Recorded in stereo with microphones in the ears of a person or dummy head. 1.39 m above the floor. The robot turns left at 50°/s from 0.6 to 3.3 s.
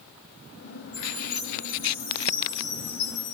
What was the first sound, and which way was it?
A chime, straight behind.